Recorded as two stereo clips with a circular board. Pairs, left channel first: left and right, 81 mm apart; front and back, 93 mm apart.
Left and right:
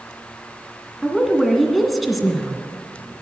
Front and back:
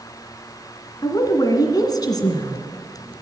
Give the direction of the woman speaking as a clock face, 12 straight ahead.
12 o'clock.